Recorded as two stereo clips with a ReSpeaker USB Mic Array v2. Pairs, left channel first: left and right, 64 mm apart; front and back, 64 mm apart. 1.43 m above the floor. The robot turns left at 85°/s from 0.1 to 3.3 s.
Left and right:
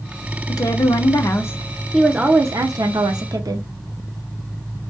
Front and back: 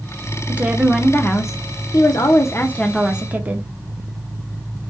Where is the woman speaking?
120° left, 0.6 m; by 3.7 s 115° right, 0.6 m.